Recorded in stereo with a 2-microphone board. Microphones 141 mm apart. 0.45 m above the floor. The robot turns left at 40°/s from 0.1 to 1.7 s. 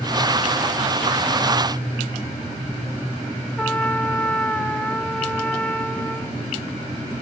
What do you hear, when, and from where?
3.6 s a trumpet: 5° left (ahead or behind), 0.9 m